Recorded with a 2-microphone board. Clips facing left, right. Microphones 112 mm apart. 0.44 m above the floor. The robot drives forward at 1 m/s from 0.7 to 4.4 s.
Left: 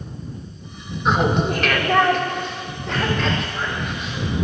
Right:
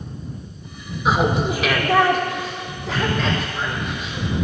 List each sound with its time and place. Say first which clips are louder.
1.1 s laughter: even; 5° right (ahead or behind), 1.4 m